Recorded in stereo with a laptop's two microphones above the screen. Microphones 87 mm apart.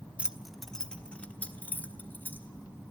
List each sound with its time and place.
0.2 s keys jangling: 15° right (ahead or behind), 0.6 m; by 2.5 s 20° left (ahead or behind), 2.5 m